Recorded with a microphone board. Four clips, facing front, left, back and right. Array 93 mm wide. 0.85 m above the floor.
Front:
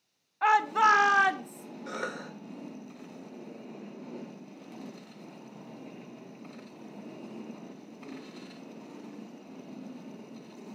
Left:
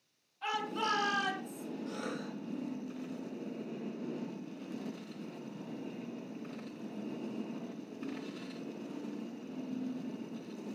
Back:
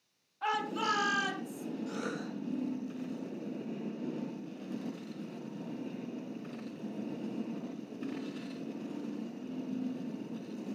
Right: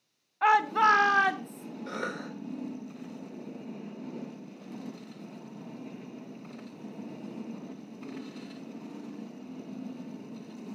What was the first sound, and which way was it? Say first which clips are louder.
A shout: right 13 dB, front 10 dB; 60° right.